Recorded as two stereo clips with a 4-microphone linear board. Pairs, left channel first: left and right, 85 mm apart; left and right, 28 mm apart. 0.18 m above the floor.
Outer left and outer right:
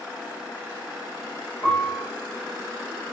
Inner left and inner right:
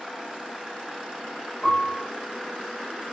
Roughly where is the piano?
Left.